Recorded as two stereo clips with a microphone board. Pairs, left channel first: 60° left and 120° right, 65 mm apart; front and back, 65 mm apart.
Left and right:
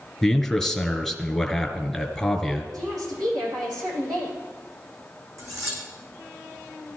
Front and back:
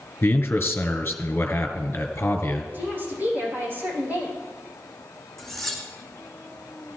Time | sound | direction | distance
0.2 | a man speaking | 25° right | 1.6 m
2.7 | a woman speaking | 120° right | 6 m
5.4 | cutlery clinking | 85° right | 4 m